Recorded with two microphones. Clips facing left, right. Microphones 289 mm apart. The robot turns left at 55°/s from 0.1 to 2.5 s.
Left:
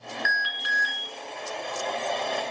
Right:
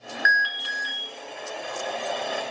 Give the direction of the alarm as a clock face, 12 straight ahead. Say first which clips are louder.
Right 2 dB; 10 o'clock.